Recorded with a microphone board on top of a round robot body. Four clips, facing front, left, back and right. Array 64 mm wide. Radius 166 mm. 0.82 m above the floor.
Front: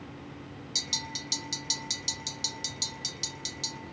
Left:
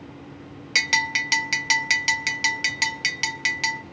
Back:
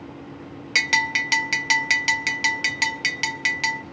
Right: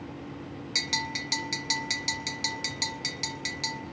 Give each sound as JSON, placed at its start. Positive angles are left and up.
{"t": 0.8, "sound": "a bell", "azimuth_deg": 150, "distance_m": 0.8}